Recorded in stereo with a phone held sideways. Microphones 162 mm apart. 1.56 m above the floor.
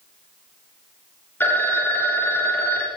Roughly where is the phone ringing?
Centre.